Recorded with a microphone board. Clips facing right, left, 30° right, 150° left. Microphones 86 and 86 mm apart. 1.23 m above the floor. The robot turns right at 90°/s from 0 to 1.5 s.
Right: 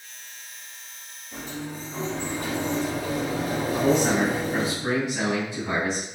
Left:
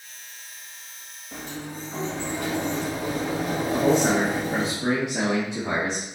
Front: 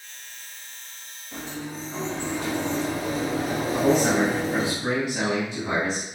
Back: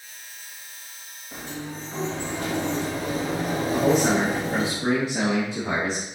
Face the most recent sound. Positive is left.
turn(degrees=100)